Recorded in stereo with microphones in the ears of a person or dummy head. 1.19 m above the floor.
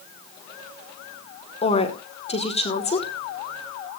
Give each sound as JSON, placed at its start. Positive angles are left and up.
{"t": 1.6, "sound": "a woman speaking", "side_deg": 35, "distance_m": 2.0}